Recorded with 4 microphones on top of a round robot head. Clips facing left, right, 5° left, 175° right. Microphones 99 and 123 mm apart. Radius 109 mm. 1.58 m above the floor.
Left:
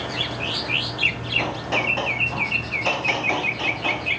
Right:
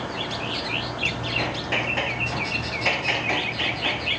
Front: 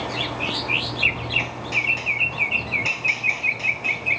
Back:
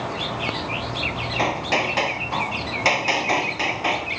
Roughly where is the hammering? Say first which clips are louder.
Left 4 dB, back 8 dB; behind.